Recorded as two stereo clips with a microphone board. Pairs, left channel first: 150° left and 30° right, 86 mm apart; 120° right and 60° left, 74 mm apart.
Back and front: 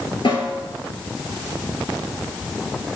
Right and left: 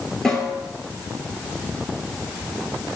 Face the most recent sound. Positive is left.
turn(degrees=155)